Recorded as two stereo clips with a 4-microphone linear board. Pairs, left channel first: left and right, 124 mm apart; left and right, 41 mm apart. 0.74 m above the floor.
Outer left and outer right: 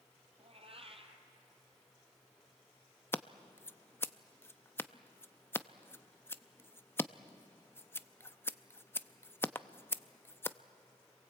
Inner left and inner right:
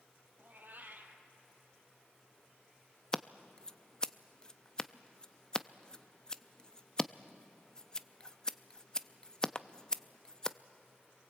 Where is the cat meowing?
50° right (ahead or behind), 2 m.